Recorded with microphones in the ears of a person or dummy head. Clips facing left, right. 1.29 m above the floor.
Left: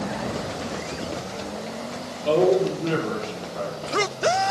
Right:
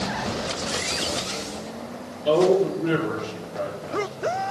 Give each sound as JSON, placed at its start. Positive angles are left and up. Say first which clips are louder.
{"t": 2.2, "sound": "a man speaking", "louder": "right 1 dB", "side_deg": -5, "distance_m": 3.5}